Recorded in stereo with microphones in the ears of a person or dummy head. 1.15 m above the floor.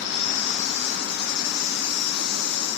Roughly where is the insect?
Left.